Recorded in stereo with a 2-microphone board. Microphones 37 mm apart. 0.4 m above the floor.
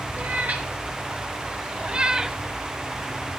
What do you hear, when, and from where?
0.2 s a cat meowing: 45° right (ahead or behind), 3 m; by 2.4 s 5° right (ahead or behind), 0.9 m